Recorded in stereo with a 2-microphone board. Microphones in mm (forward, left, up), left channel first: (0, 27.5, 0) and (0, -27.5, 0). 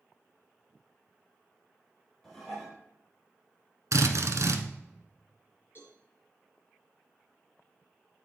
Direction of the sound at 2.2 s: 10° left (ahead or behind).